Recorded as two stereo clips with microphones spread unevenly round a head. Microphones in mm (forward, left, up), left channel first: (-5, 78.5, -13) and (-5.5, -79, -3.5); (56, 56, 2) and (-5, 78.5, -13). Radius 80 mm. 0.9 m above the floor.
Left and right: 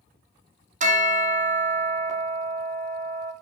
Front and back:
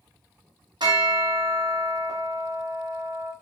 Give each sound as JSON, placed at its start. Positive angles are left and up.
{"t": 0.8, "sound": "a bell", "azimuth_deg": -135, "distance_m": 1.1}